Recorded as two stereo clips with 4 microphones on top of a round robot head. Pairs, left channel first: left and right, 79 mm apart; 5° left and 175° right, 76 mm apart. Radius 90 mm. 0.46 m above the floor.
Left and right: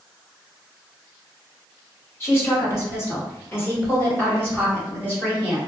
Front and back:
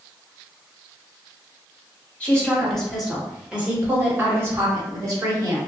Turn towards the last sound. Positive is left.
turn(degrees=160)